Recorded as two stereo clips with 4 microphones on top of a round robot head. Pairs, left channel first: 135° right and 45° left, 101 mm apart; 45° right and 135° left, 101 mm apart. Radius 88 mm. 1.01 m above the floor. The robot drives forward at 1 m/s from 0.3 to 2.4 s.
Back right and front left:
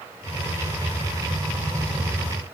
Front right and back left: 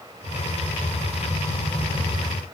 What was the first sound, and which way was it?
Only background noise.